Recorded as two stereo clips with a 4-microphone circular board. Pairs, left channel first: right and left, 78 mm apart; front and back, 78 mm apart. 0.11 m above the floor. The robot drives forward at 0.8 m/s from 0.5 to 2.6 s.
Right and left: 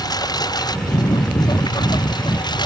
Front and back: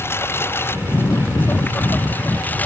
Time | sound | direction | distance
0.0 | a lawn mower | 60° right | ?